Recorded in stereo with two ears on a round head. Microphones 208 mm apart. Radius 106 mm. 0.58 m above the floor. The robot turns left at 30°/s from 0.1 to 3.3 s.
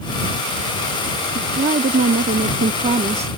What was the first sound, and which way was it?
A woman speaking, 75° right.